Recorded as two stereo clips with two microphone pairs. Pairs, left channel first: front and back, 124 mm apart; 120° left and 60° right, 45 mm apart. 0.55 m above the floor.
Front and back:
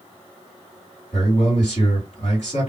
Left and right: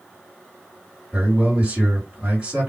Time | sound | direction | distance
1.1 | a man speaking | 5° right | 1.9 m